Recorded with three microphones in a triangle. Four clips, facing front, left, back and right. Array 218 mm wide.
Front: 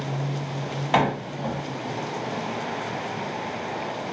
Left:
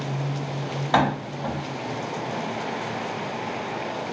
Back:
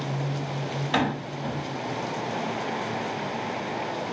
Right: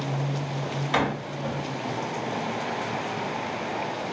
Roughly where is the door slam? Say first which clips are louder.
Left 5 dB, front 5 dB; ahead left.